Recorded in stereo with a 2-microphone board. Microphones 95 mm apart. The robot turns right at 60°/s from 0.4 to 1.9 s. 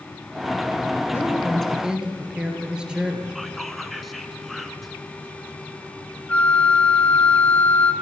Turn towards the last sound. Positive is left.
turn(degrees=15)  # may be behind; listen again after turning